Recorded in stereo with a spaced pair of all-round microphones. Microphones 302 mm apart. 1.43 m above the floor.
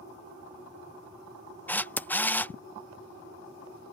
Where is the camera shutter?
5° left (ahead or behind).